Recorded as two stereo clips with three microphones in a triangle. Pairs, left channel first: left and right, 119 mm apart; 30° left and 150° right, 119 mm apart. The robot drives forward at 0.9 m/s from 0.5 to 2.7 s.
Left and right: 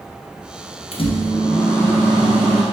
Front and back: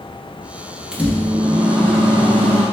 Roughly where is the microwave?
Behind left.